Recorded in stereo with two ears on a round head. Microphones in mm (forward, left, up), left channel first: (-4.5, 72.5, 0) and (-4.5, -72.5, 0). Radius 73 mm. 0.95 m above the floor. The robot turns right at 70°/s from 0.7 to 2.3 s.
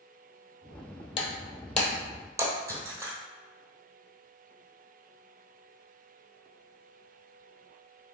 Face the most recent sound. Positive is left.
turn(degrees=-20)  # may be behind; listen again after turning